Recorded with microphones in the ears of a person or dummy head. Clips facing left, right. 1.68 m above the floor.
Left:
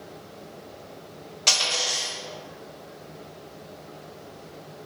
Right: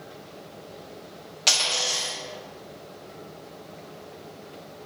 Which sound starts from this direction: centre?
A dropped coin, at 1.5 s.